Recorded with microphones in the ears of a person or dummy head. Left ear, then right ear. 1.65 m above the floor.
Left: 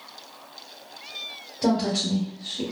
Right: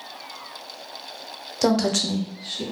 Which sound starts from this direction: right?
A woman speaking, at 1.6 s.